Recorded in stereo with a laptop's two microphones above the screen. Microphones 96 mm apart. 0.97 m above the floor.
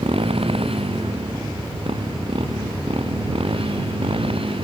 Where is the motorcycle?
80° right; by 4.7 s 70° right (ahead or behind).